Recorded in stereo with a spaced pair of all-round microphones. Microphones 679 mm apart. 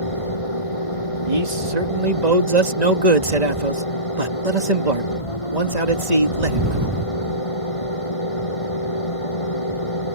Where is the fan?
50° left (ahead or behind).